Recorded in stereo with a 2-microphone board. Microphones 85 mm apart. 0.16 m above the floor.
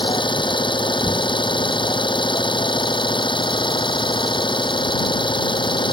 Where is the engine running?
70° left (ahead or behind).